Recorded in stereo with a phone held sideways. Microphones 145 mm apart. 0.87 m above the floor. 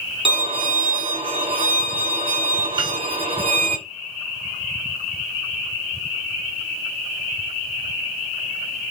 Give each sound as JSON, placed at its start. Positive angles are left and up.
{"t": 0.2, "sound": "a violin", "side_deg": -40, "distance_m": 0.6}
{"t": 2.8, "sound": "a piano", "side_deg": -20, "distance_m": 1.3}